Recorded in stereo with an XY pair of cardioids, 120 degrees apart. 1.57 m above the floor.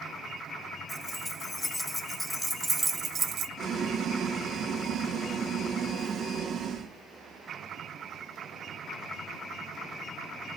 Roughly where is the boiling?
Ahead right.